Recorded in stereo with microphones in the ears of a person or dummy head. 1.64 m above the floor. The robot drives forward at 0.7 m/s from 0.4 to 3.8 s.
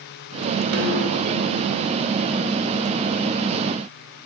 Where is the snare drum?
55° right (ahead or behind), 1.1 m; by 1.2 s 60° right (ahead or behind), 1.0 m.